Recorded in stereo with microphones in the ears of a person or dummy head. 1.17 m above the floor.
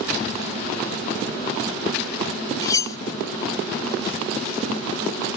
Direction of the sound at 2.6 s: 20° left (ahead or behind).